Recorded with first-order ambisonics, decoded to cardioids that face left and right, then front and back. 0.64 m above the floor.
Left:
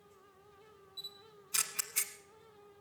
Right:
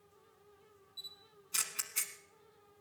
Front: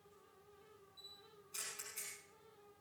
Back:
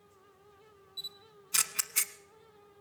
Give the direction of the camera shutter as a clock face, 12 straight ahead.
6 o'clock.